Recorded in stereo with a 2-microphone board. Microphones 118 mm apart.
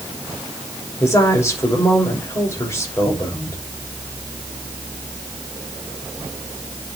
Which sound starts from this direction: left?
A woman speaking, at 1.0 s.